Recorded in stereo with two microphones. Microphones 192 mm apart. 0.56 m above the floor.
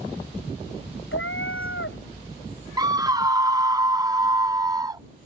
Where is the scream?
20° right (ahead or behind).